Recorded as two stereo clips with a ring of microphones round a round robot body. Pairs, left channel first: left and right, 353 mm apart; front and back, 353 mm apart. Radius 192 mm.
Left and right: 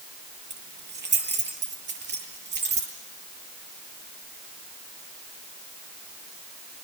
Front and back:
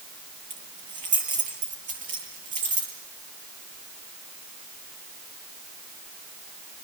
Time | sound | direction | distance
0.5 | keys jangling | 150° right | 8.5 m